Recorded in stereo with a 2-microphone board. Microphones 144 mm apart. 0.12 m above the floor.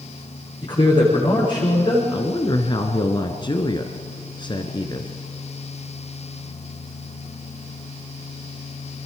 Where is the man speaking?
35° left (ahead or behind), 9.5 m.